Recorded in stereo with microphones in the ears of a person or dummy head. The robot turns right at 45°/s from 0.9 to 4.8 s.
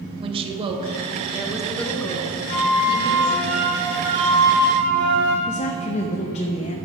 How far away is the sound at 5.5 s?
About 0.7 m.